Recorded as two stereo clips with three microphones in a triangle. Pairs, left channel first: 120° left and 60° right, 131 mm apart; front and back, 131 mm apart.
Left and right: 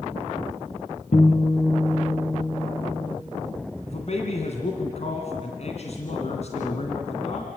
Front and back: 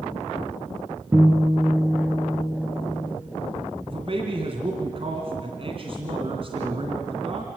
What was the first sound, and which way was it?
A guitar, 110° left.